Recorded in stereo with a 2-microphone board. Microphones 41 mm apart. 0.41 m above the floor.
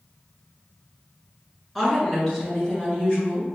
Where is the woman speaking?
5° left (ahead or behind), 1.5 m; by 3.5 s 45° left (ahead or behind), 3 m.